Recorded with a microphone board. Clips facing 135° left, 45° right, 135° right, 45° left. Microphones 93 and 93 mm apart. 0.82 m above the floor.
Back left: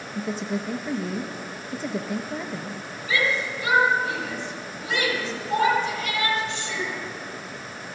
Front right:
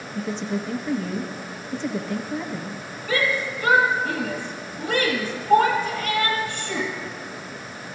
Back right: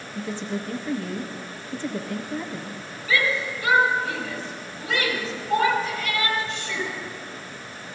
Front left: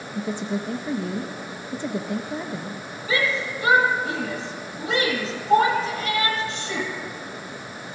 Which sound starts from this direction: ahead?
A shout, at 3.1 s.